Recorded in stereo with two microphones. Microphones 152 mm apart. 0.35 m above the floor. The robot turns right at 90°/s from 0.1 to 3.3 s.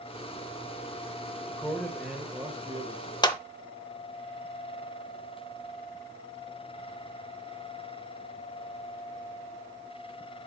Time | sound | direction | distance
1.5 | a man speaking | 20° left (ahead or behind) | 1.1 m
3.2 | a clap | 30° left (ahead or behind) | 0.7 m